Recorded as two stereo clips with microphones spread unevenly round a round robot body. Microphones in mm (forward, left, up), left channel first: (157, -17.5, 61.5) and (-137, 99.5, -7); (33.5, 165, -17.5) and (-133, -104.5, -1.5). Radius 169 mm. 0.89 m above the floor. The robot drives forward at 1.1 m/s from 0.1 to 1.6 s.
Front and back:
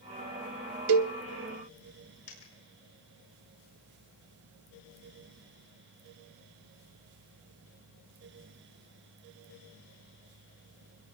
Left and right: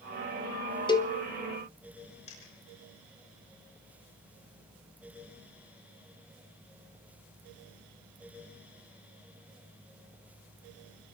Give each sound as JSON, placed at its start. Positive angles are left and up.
{"t": 0.9, "sound": "a cowbell", "azimuth_deg": 135, "distance_m": 0.9}
{"t": 2.3, "sound": "a dropped coin", "azimuth_deg": -15, "distance_m": 6.5}